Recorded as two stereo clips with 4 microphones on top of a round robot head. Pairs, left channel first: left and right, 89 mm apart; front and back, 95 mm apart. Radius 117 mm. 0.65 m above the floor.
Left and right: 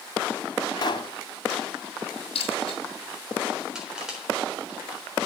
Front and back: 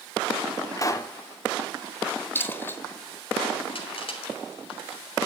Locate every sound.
0.8 s a pop: 50° left, 1.6 m
2.4 s a dropped coin: 65° left, 2.5 m
3.8 s crushing: 10° right, 3.5 m